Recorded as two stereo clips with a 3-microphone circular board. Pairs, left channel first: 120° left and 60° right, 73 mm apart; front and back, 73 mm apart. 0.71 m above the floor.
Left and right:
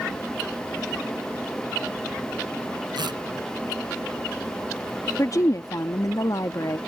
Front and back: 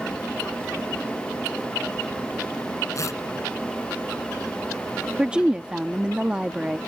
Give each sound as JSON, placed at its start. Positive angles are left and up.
{"t": 3.0, "sound": "tearing paper", "azimuth_deg": -50}
{"t": 5.2, "sound": "a woman speaking", "azimuth_deg": 110}